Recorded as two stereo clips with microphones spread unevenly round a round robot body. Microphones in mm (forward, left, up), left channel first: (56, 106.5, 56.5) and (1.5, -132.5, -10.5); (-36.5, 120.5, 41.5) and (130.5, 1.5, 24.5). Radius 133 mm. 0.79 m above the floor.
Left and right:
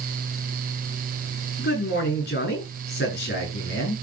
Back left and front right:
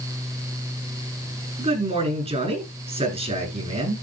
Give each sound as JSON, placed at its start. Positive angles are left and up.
{"t": 1.6, "sound": "a man speaking", "azimuth_deg": 25, "distance_m": 8.0}